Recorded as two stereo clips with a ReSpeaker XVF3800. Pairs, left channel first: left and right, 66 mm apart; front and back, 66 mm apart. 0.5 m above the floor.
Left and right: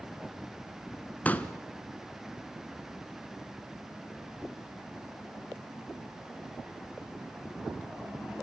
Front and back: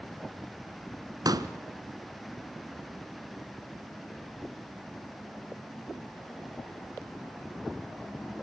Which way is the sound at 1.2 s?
160° left.